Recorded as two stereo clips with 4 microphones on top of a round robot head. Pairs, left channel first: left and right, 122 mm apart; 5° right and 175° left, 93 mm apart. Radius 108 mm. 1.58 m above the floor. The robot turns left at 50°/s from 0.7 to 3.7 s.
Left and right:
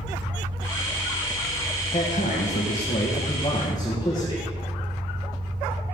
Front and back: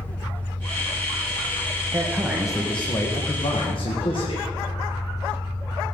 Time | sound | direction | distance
0.0 | an engine running | 70° left | 2 m
1.9 | a man speaking | 115° left | 1.9 m